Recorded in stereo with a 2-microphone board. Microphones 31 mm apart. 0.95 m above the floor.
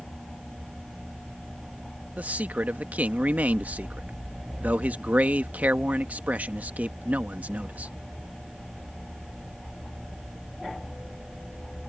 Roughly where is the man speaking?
Right.